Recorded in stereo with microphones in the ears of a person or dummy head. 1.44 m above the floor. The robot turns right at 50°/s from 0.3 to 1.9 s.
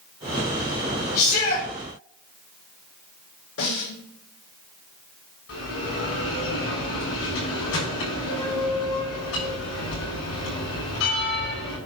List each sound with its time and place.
1.1 s a shout: 40° left (ahead or behind), 4.5 m; by 1.7 s 65° left (ahead or behind), 4.5 m
3.6 s a snare drum: 80° left, 6 m
5.5 s a bell: 85° left, 6.5 m